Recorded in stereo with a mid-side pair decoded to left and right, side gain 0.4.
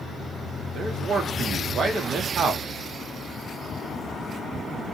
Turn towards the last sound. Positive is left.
turn(degrees=-50)